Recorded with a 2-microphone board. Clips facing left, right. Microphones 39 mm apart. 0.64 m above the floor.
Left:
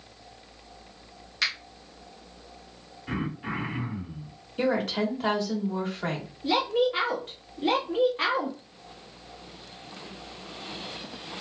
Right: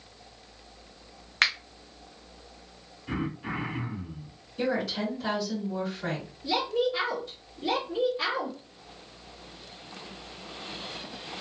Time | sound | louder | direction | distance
1.4 | a finger snap | right 4 dB | 50° right (ahead or behind) | 0.6 m
3.1 | throat clearing | left 1 dB | 20° left (ahead or behind) | 1.1 m
4.6 | a woman speaking | left 3 dB | 45° left (ahead or behind) | 1.2 m
6.4 | a woman speaking | left 3 dB | 45° left (ahead or behind) | 0.9 m